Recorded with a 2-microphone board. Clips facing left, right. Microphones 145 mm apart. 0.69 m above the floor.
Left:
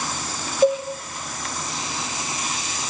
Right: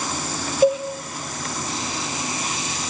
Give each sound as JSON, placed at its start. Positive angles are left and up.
{"t": 0.6, "sound": "a cowbell", "side_deg": -5, "distance_m": 3.0}